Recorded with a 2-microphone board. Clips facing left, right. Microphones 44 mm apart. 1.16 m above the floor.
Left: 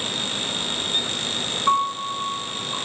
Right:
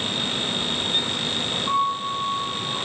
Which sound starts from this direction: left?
A piano, at 1.7 s.